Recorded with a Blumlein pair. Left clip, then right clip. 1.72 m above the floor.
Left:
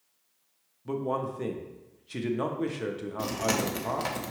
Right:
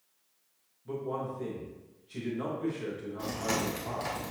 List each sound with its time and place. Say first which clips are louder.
0.8 s a man speaking: left 4 dB; 65° left, 0.7 m
3.2 s chewing: left 4 dB; 70° left, 0.9 m